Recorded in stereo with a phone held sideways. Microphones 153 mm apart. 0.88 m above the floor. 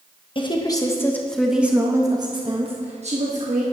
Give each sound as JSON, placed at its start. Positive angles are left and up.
{"t": 0.3, "sound": "a woman speaking", "side_deg": 35, "distance_m": 1.1}